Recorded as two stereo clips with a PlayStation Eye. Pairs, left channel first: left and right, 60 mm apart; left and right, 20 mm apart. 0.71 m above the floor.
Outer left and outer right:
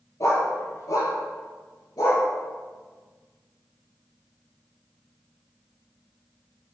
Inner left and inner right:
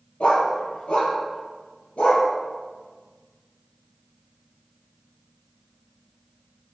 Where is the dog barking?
60° left (ahead or behind), 6.5 m; by 2.3 s 85° left, 7 m.